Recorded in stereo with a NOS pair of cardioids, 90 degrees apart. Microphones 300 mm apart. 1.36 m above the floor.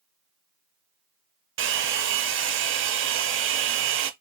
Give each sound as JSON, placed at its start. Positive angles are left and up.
{"t": 1.6, "sound": "a hair dryer", "azimuth_deg": -45, "distance_m": 0.6}